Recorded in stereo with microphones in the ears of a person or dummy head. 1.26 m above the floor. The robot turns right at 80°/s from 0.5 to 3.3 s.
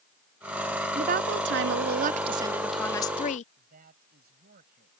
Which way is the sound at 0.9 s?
140° right.